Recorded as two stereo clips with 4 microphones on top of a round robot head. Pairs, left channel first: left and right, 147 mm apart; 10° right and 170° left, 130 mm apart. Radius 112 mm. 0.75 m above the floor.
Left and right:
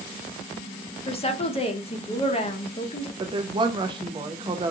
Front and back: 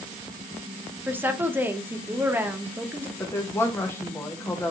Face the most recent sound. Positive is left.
turn(degrees=-70)